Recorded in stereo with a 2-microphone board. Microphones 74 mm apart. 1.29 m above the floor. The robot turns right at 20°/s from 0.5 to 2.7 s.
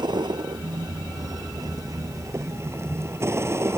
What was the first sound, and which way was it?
A vehicle, 80° right.